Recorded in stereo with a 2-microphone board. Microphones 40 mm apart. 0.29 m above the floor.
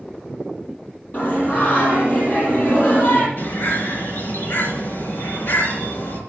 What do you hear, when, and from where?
1.1 s singing: 45° left (ahead or behind), 5.5 m
3.4 s a bird: 65° left (ahead or behind), 4 m